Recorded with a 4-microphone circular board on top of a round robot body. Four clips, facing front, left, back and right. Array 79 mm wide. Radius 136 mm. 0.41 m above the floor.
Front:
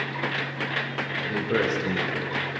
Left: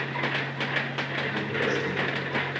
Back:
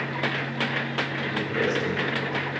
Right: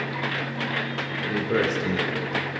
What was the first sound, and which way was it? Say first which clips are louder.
A man speaking: right 6 dB, front 2 dB; 55° right.